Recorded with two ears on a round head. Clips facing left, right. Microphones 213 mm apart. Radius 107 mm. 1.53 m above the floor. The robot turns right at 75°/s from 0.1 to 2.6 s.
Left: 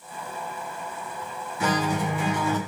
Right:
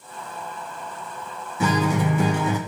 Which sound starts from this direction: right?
A guitar, at 1.6 s.